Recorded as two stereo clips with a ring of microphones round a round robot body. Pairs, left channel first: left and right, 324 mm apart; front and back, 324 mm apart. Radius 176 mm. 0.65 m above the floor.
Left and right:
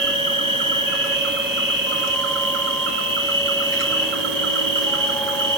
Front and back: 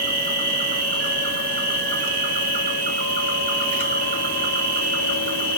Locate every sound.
0.0 s an insect: 130° right, 0.7 m